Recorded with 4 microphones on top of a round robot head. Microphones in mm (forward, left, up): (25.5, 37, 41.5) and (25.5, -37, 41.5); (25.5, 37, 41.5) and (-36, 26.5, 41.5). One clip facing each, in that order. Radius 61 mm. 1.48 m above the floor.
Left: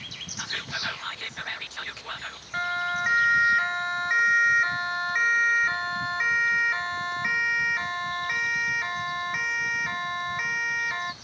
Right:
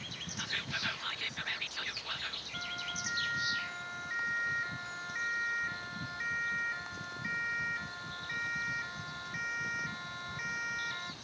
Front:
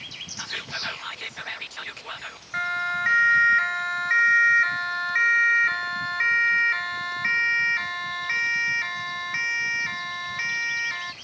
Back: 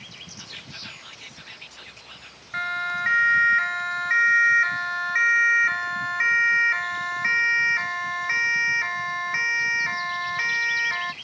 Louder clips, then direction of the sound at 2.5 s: Left 16 dB, front 1 dB; 95° left.